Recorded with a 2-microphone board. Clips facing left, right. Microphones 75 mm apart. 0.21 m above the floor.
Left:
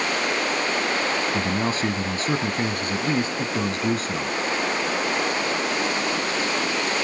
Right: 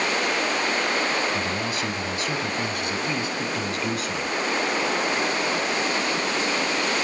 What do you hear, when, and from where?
1.3 s a man speaking: 35° left (ahead or behind), 1.4 m